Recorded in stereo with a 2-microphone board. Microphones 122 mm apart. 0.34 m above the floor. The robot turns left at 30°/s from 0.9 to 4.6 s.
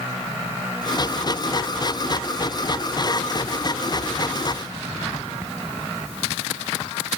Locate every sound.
Only background noise.